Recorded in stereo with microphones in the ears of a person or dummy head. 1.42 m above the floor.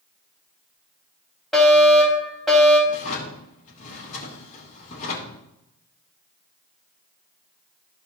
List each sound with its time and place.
1.5 s a fire alarm: 5° left (ahead or behind), 4 m
2.9 s a drawer: 45° left (ahead or behind), 3 m